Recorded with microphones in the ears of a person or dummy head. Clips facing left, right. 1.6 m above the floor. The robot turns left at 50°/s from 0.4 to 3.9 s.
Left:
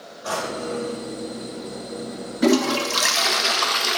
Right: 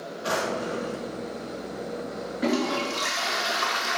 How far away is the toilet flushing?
About 0.6 m.